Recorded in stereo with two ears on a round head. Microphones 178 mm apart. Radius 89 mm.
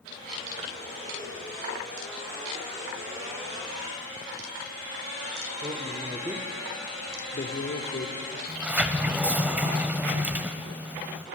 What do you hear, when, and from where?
5.6 s a man speaking: 30° right (ahead or behind), 1.8 m; by 8.4 s 60° left (ahead or behind), 2 m
8.5 s a sliding door: 10° right (ahead or behind), 0.8 m